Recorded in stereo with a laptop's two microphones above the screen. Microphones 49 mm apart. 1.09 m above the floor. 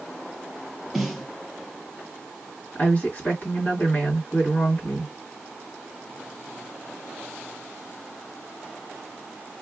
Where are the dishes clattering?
No dishes clattering in this recording.